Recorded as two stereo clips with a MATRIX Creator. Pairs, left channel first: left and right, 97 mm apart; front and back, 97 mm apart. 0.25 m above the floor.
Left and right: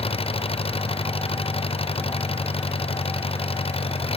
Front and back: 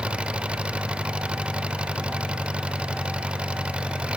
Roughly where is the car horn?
I don't hear a car horn.